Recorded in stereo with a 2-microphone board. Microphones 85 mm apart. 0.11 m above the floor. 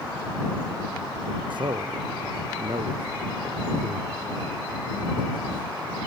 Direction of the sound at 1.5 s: 60° right (ahead or behind).